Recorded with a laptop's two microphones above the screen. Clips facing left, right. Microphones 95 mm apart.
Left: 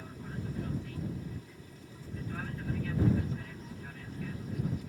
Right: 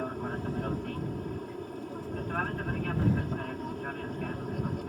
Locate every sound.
0.0 s an aircraft: 55° right (ahead or behind)